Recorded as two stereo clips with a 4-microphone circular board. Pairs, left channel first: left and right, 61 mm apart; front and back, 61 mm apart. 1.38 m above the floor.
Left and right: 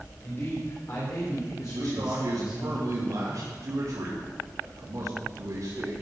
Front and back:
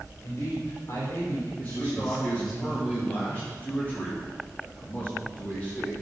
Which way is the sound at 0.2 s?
40° left.